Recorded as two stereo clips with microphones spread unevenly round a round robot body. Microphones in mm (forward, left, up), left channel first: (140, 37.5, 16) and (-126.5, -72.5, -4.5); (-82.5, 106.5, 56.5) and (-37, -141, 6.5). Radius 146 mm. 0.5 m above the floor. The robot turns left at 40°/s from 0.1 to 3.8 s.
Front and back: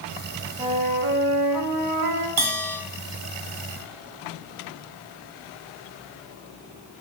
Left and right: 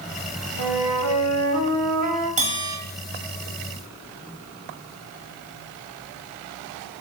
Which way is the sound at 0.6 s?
85° right.